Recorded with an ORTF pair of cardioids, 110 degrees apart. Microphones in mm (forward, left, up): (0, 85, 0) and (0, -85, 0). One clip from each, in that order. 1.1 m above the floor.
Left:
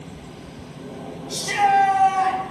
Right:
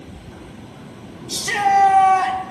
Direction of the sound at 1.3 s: 60° right.